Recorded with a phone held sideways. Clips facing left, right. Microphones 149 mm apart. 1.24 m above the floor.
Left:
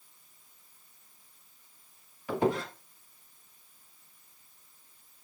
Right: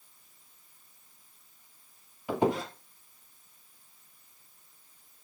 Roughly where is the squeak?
Centre.